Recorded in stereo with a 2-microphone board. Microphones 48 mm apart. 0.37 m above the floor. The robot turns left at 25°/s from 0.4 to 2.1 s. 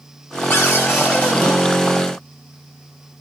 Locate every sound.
0.5 s a cupboard door: 60° left (ahead or behind), 3.5 m; by 1.6 s 35° left (ahead or behind), 3.5 m